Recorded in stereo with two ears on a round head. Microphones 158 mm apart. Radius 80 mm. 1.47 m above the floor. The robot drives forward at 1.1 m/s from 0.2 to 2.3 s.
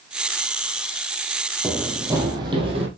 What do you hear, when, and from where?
1.6 s running footsteps: 5° right (ahead or behind), 2 m; by 2.9 s 35° right (ahead or behind), 3.5 m